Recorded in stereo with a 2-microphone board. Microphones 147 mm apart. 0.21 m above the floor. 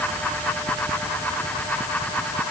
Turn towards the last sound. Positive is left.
No sound to turn to.